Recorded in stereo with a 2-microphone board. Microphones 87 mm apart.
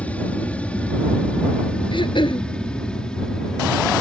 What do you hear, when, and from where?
0.0 s an aircraft: 15° left (ahead or behind); by 4.0 s 10° left (ahead or behind)
1.9 s throat clearing: 70° left (ahead or behind)